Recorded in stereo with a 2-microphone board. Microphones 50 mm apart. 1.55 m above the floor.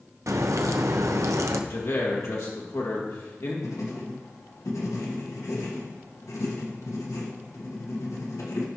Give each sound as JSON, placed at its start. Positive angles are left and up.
{"t": 0.3, "sound": "a crack", "side_deg": -85, "distance_m": 0.6}
{"t": 1.7, "sound": "a man speaking", "side_deg": 75, "distance_m": 2.0}
{"t": 3.6, "sound": "writing", "side_deg": 85, "distance_m": 1.5}